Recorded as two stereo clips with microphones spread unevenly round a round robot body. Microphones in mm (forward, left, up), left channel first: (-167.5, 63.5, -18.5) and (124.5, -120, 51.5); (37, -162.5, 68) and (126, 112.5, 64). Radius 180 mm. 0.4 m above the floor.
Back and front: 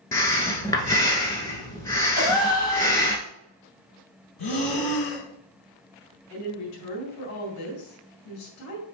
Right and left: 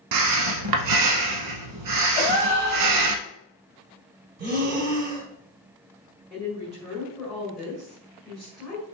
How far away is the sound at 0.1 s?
About 0.8 m.